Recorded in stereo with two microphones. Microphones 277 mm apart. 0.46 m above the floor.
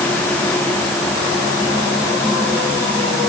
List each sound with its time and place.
Only background noise.